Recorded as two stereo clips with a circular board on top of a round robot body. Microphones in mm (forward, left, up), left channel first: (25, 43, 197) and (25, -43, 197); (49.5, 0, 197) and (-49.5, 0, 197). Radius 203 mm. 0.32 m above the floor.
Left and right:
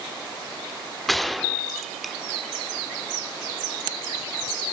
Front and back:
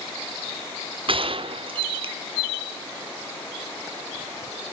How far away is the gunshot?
About 1.0 m.